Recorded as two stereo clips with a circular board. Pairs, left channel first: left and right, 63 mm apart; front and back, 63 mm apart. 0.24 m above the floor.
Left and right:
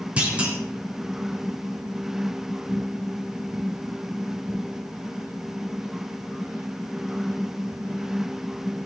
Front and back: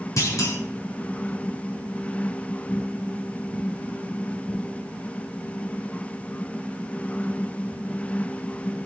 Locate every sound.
0.2 s a clunk: 20° right, 2.5 m